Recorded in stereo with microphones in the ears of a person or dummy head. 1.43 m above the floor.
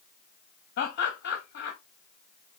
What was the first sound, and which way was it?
Laughter, 60° left (ahead or behind).